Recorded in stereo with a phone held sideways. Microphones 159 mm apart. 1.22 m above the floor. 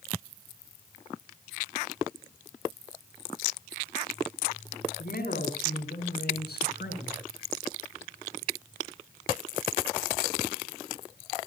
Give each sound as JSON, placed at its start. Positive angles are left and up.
{"t": 5.0, "sound": "a man speaking", "side_deg": 70, "distance_m": 4.5}